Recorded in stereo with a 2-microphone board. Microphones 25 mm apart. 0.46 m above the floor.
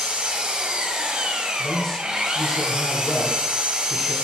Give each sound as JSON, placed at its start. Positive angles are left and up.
{"t": 0.0, "sound": "an engine running", "side_deg": -40, "distance_m": 1.0}
{"t": 1.6, "sound": "a man speaking", "side_deg": 10, "distance_m": 1.9}